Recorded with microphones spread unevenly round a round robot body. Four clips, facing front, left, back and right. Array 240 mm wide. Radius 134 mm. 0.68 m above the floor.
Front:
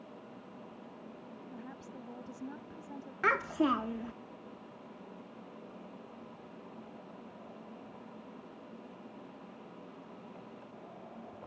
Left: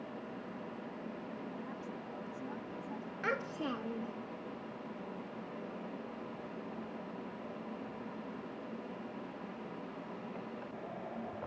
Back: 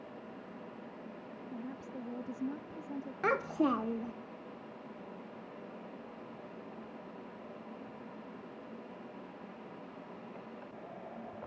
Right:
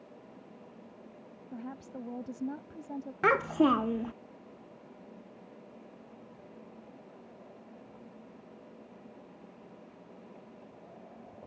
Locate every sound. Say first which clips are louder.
1.5 s a woman speaking: right 1 dB, back 6 dB; 125° right
3.2 s a child speaking: right 12 dB, front 1 dB; 70° right